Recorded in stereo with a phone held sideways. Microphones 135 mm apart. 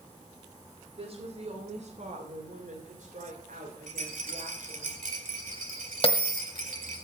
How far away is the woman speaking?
About 3.5 m.